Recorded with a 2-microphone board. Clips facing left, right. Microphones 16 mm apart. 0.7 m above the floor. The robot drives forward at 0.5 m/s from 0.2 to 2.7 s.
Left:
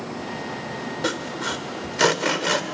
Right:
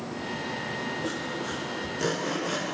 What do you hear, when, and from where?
1.0 s sawing: 70° left (ahead or behind), 2.5 m